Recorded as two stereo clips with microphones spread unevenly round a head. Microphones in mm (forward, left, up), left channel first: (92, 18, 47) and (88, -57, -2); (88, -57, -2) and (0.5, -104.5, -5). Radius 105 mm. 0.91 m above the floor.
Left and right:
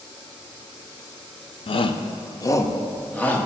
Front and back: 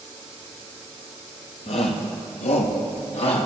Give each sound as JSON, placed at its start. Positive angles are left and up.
{"t": 1.7, "sound": "a shout", "azimuth_deg": 70, "distance_m": 0.7}